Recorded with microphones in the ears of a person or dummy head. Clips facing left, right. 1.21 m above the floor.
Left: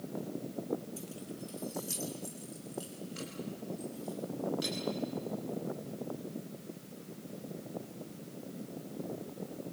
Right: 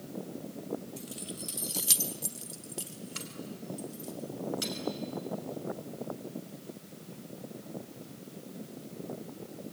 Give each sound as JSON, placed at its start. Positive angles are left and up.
{"t": 1.0, "sound": "keys jangling", "side_deg": 5, "distance_m": 0.6}